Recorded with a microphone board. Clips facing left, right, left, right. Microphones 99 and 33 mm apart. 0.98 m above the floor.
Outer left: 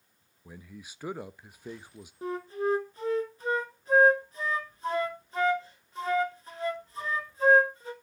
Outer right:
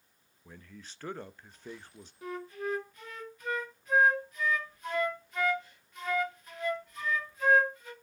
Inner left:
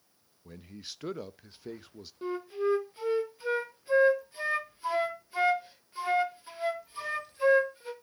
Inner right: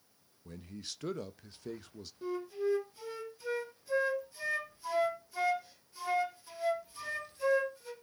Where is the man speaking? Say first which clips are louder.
Outer left 3 dB, even; 10° left (ahead or behind), 0.7 m.